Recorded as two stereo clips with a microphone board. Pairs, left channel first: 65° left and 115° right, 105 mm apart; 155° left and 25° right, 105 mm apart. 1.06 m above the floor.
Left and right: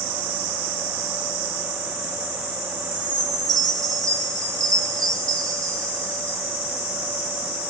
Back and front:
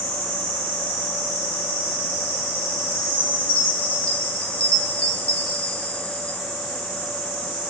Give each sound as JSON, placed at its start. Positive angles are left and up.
{"t": 2.9, "sound": "a chime", "azimuth_deg": -170, "distance_m": 1.3}